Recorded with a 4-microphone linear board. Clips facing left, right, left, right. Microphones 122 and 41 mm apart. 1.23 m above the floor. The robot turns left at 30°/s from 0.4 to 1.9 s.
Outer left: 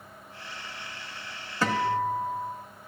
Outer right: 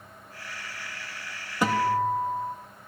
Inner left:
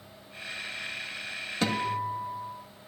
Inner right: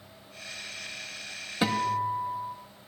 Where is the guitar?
15° right (ahead or behind), 1.3 m; by 2.5 s 5° right (ahead or behind), 1.3 m.